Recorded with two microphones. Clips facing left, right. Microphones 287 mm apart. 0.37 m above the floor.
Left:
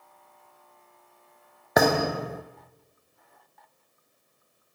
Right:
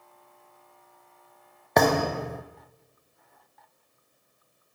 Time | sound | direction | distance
1.8 | a thud | 5° left (ahead or behind) | 1.0 m